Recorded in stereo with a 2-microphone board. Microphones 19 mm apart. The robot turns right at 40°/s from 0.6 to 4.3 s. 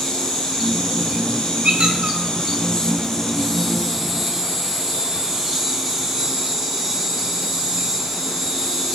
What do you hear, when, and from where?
0.0 s an insect: 55° left, 1.4 m; by 8.9 s 155° right, 1.4 m
1.6 s a squeak: 80° right, 1.8 m